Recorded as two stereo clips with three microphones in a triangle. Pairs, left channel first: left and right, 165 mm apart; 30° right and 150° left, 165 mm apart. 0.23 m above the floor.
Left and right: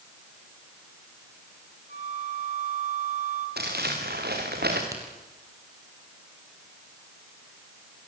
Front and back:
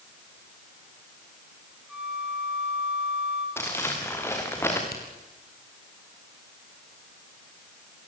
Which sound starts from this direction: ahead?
A crack, at 4.9 s.